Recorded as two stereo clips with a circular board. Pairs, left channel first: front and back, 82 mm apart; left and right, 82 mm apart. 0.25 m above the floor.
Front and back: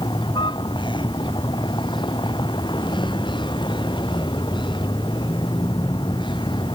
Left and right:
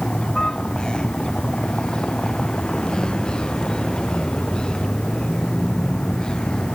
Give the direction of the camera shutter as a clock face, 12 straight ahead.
I don't hear a camera shutter.